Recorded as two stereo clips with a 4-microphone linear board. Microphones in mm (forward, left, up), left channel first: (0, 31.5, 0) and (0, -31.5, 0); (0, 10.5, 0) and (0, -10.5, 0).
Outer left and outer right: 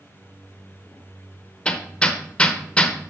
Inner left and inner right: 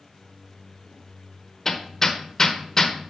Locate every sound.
1.6 s hammering: 20° left (ahead or behind), 0.7 m